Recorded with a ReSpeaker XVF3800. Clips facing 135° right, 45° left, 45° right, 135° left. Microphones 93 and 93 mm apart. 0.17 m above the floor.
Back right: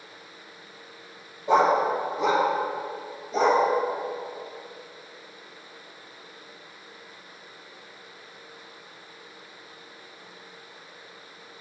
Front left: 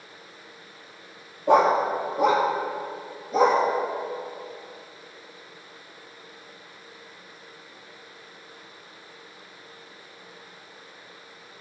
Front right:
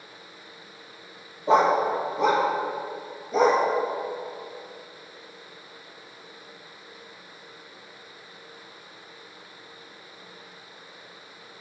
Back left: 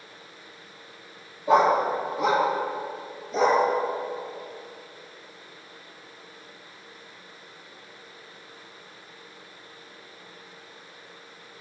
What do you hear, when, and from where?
1.5 s a dog barking: 20° left, 1.6 m; by 3.6 s straight ahead, 2.5 m